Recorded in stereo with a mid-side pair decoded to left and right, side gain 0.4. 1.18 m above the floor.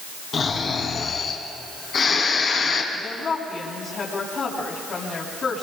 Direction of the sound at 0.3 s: 60° left.